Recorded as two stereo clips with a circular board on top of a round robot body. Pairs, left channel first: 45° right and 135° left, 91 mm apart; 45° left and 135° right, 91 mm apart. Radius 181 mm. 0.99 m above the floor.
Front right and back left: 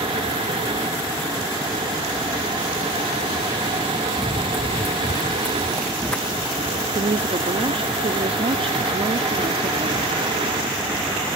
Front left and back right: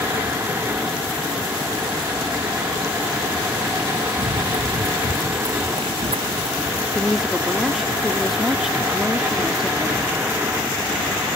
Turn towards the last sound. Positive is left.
turn(degrees=140)